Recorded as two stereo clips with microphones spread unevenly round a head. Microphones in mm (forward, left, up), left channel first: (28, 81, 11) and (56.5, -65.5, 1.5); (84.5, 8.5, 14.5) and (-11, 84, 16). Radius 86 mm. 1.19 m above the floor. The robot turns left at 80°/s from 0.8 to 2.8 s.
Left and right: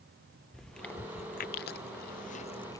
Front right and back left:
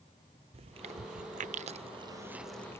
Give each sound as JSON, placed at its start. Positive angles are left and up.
{"t": 0.5, "sound": "chewing", "azimuth_deg": -170}